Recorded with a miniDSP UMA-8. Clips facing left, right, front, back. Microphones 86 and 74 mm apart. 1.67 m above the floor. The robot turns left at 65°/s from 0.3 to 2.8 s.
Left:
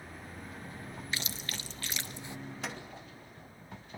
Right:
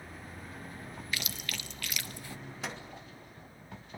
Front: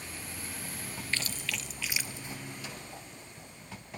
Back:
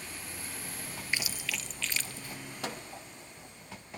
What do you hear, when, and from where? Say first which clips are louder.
1.1 s chewing: right 1 dB, back 1 dB; 120° left, 1.0 m; by 2.4 s 40° left, 1.0 m
2.6 s a microwave: right 1 dB, back 5 dB; 175° right, 2.5 m; by 2.8 s 170° left, 2.5 m